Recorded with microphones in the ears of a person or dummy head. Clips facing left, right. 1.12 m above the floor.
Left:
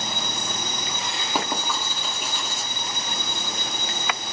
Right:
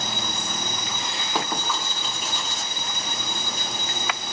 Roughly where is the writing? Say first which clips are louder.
Even; centre.